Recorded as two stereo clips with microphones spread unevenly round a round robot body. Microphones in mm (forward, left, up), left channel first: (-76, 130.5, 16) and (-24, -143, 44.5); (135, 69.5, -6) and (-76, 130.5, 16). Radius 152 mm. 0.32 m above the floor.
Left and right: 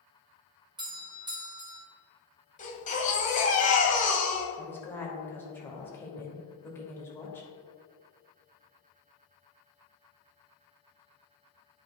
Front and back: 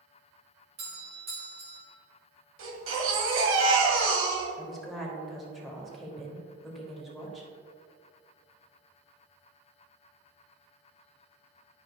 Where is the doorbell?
150° right, 1.9 m.